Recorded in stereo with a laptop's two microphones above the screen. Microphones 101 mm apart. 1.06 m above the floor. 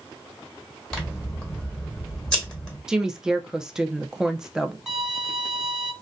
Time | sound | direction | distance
0.9 | scissors | 5° left (ahead or behind) | 1.5 m
2.9 | a woman speaking | 5° right (ahead or behind) | 0.5 m
4.9 | a violin | centre (ahead or behind) | 0.6 m